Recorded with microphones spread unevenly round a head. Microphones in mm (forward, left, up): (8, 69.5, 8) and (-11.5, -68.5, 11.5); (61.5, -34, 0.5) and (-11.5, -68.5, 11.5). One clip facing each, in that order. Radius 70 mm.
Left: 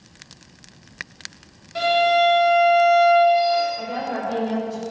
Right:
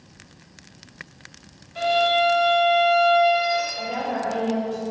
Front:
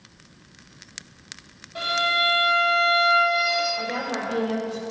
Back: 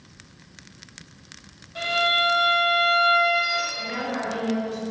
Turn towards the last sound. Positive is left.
turn(degrees=55)